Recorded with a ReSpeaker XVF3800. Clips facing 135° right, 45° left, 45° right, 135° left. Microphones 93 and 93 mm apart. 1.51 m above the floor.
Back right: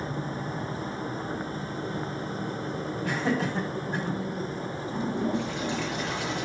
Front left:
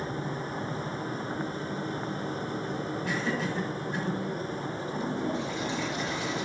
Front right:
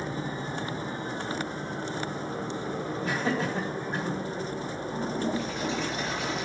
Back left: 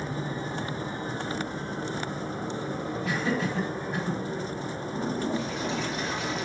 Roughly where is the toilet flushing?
Behind right.